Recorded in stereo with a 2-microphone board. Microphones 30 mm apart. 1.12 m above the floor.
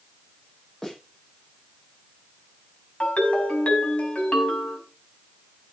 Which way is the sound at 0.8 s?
15° left (ahead or behind).